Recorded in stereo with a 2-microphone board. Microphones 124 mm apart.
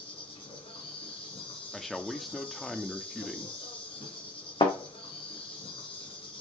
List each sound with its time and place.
0.0 s an insect: 45° left (ahead or behind), 2.5 m
1.7 s a man speaking: centre (ahead or behind), 0.7 m
4.6 s a thud: 45° left (ahead or behind), 2.5 m